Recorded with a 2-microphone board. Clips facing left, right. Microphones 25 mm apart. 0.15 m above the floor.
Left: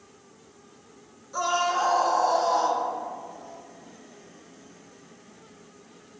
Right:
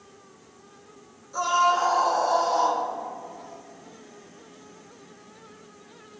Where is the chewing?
I don't hear chewing.